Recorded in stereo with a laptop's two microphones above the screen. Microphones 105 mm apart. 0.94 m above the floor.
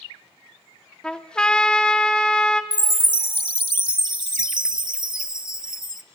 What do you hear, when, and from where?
1.0 s a trumpet: 10° left (ahead or behind), 0.9 m
2.7 s a chime: 45° right (ahead or behind), 0.7 m